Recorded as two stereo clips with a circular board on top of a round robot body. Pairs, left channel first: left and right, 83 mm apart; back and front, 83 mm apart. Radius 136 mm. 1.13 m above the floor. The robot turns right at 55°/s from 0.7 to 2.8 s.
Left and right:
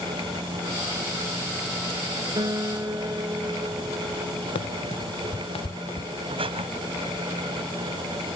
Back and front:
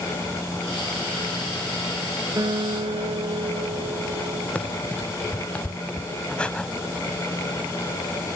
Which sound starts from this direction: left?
Running footsteps, at 4.5 s.